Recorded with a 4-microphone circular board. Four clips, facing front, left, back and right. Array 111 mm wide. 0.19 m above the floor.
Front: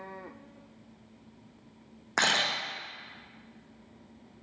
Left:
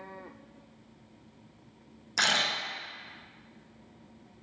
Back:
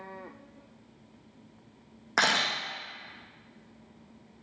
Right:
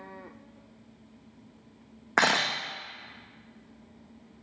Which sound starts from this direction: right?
A camera shutter, at 2.2 s.